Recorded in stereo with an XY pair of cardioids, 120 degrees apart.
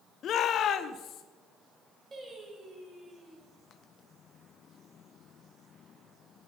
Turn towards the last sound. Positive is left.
turn(degrees=-35)